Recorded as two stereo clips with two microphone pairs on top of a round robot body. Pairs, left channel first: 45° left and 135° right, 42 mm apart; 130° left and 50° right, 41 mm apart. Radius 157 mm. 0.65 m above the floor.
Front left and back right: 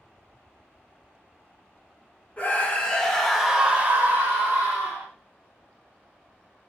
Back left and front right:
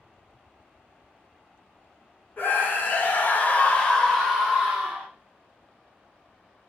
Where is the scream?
95° left, 1.3 m; by 5.1 s 125° right, 1.4 m.